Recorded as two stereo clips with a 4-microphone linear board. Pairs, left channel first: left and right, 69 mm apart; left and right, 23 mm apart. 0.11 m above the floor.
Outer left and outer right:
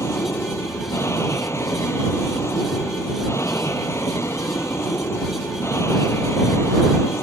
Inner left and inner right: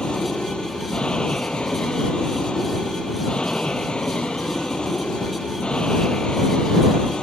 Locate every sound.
0.0 s an aircraft: 45° left (ahead or behind)